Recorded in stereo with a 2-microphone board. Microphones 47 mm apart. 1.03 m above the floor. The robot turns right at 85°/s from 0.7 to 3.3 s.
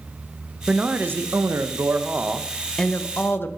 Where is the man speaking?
160° right, 0.7 m; by 3.5 s 60° left, 0.7 m.